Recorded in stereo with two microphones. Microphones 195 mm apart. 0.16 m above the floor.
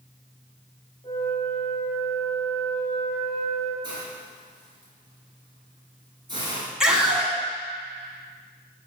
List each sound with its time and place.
1.0 s a flute: 20° left (ahead or behind), 1.4 m
3.8 s a hiss: 25° right (ahead or behind), 1.3 m
6.8 s a scream: 5° right (ahead or behind), 1.0 m